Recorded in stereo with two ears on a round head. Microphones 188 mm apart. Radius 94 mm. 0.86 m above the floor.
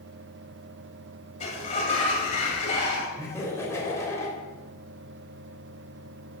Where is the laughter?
15° left (ahead or behind), 3.5 m.